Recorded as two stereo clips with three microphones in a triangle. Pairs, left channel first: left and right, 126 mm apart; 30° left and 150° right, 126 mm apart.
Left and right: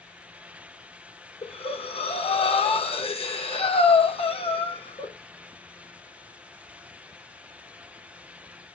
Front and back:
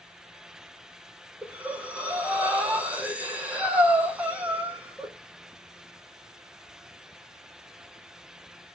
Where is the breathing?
130° left, 0.8 m.